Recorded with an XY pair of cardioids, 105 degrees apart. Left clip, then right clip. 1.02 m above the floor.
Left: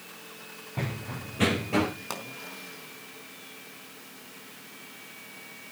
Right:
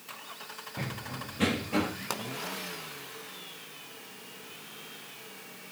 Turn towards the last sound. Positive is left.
turn(degrees=-15)